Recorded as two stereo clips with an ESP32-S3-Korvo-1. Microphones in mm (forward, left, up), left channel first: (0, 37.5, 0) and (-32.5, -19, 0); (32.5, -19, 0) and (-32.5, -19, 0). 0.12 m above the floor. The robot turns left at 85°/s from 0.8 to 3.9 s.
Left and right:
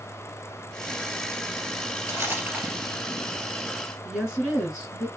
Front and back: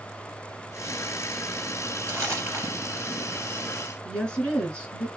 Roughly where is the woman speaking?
Ahead right.